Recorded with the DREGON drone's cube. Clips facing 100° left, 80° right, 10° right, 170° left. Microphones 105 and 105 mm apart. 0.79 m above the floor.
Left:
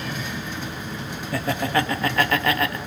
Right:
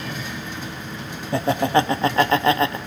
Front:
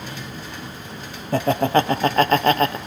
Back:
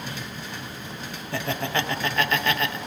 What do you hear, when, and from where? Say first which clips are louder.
1.3 s laughter: right 5 dB, front 10 dB; 30° right, 0.6 m